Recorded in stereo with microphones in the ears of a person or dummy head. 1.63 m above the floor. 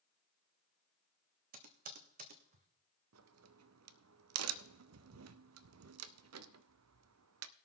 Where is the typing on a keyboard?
45° right (ahead or behind), 1.3 m.